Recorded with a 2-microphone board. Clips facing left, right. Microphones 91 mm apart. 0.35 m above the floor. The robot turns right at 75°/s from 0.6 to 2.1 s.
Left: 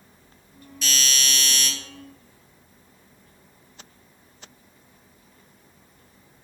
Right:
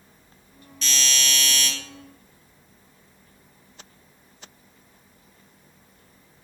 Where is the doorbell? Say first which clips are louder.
Even; 5° left (ahead or behind), 1.8 m; by 1.7 s 25° left (ahead or behind), 1.8 m.